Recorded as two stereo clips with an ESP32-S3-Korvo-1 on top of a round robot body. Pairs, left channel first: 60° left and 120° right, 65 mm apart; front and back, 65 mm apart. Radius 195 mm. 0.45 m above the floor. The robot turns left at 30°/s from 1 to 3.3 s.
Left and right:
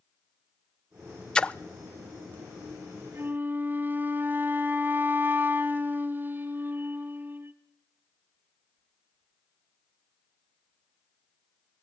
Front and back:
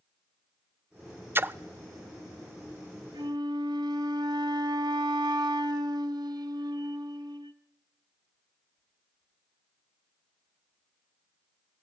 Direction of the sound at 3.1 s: 175° right.